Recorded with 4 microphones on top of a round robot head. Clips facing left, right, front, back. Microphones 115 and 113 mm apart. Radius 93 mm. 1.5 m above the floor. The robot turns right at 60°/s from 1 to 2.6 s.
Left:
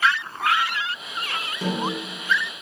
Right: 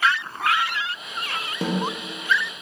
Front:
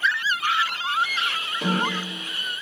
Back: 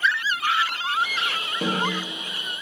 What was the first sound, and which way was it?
A snare drum, 120° right.